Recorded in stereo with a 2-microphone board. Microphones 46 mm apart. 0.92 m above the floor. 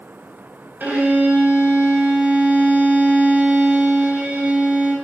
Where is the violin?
50° right (ahead or behind), 3 m.